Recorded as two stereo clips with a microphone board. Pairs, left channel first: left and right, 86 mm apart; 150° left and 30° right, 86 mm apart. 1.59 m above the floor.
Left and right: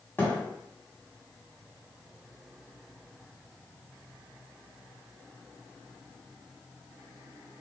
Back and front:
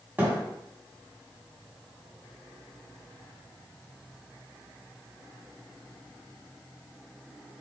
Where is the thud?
30° left, 1.9 m.